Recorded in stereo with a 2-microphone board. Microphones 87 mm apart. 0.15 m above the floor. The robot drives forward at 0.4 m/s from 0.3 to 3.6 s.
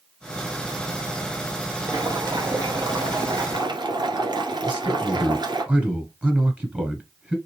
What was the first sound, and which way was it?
Boiling, 50° right (ahead or behind).